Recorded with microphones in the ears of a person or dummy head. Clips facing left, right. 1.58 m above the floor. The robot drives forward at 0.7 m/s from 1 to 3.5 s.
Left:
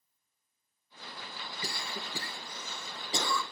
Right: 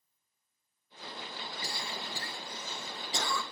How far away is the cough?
About 2 m.